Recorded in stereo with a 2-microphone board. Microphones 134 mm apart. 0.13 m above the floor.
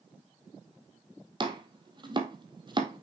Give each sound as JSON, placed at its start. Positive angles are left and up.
{"t": 1.4, "sound": "chopping", "side_deg": -35, "distance_m": 1.2}